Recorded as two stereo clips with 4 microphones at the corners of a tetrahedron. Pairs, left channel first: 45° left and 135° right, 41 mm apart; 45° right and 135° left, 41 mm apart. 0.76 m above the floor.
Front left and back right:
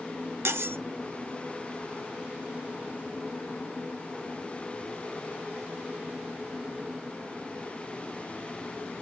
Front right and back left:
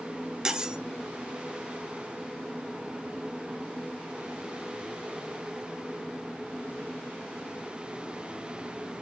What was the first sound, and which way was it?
Cutlery clinking, 150° right.